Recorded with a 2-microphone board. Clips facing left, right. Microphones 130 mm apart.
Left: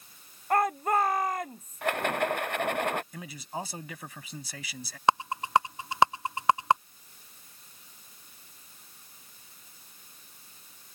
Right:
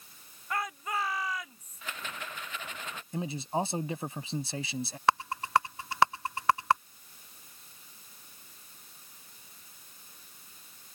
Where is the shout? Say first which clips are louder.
Left 9 dB; 50° left (ahead or behind).